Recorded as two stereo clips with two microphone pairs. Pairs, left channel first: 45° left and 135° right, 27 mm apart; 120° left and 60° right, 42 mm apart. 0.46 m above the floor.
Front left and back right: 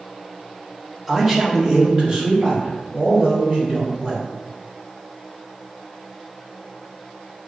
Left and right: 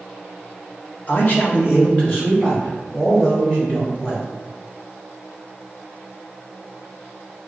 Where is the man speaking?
140° left, 1.1 m; by 4.2 s 175° left, 5 m.